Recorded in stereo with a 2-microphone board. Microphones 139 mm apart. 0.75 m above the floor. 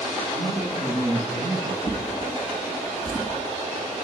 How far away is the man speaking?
About 8.5 m.